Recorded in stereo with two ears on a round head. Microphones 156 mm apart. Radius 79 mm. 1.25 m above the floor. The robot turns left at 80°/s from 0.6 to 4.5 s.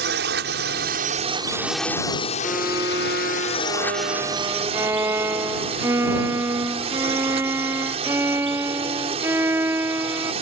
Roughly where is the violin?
Ahead.